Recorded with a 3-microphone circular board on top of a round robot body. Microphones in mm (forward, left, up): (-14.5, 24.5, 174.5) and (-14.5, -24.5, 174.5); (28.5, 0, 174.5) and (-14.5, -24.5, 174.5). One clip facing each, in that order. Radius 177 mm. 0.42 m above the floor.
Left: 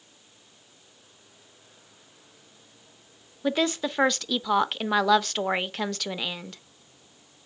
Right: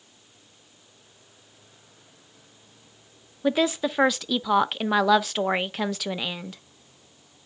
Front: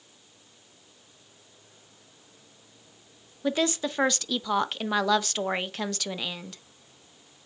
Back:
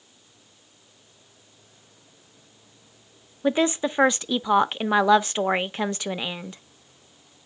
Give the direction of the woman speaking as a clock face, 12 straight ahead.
6 o'clock.